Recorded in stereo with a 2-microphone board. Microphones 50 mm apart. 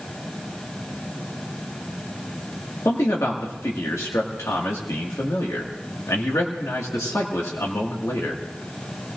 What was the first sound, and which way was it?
A man speaking, 80° left.